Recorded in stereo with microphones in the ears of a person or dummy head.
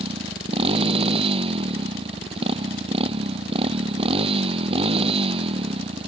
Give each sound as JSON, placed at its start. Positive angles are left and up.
{"t": 0.0, "sound": "a motorcycle", "side_deg": -25}